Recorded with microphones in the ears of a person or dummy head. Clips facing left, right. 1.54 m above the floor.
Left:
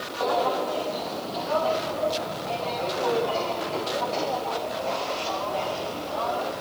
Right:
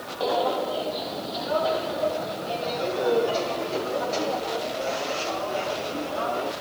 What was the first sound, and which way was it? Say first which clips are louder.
Footsteps: even; 10° right (ahead or behind).